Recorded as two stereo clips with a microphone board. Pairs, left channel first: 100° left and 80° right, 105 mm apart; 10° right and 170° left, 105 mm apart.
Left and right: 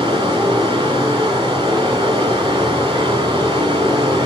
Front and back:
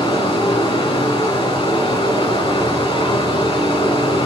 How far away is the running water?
About 3 m.